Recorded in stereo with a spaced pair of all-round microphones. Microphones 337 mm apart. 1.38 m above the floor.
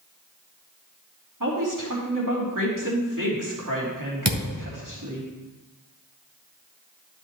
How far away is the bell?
I don't hear a bell.